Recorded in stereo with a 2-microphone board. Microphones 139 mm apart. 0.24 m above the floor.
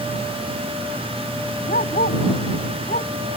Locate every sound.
1.7 s a dog barking: 85° left